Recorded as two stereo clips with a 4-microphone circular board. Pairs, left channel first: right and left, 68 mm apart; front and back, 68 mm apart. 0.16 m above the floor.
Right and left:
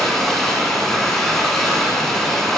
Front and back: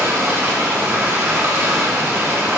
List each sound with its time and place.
0.0 s running water: 170° right, 1.3 m